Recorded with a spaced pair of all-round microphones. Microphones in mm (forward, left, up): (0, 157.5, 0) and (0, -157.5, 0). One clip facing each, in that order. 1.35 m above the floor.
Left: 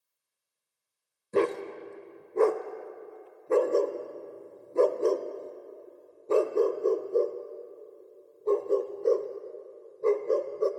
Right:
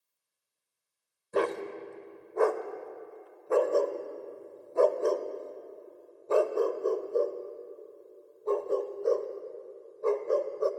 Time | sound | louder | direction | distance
1.3 | a dog barking | left 3 dB | 30° left (ahead or behind) | 1.2 m